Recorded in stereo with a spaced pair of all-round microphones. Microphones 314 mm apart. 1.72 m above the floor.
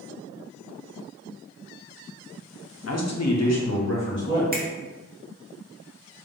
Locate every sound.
2.9 s a man speaking: 50° left (ahead or behind), 0.6 m; by 4.4 s 35° left (ahead or behind), 1.1 m
4.5 s a finger snap: 30° right (ahead or behind), 0.6 m